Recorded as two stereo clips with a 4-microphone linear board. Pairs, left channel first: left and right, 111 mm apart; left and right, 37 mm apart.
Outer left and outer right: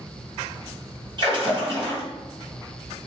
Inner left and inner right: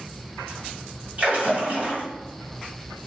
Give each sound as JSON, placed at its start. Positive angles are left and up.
{"t": 1.2, "sound": "a splash", "side_deg": -45, "distance_m": 1.9}